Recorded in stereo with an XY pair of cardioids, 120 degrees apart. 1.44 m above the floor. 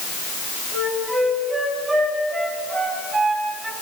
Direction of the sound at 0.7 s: 30° right.